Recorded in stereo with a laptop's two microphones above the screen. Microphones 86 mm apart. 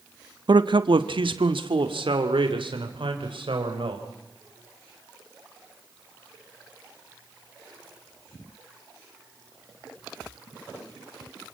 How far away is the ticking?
I don't hear ticking.